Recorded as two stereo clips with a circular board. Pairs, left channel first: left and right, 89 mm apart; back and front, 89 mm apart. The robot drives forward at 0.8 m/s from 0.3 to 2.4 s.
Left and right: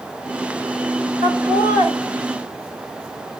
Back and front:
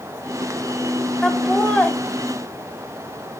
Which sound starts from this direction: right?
Laughter, at 1.2 s.